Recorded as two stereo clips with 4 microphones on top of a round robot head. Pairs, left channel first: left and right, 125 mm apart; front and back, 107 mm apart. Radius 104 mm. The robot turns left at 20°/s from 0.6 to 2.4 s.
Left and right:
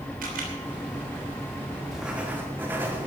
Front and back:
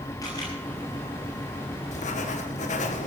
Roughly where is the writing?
Ahead.